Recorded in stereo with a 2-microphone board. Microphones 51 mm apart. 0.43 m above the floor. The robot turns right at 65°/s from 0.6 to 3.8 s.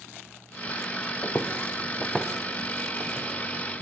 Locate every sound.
1.2 s footsteps: 50° left (ahead or behind), 3.5 m; by 3.3 s 70° right (ahead or behind), 2.5 m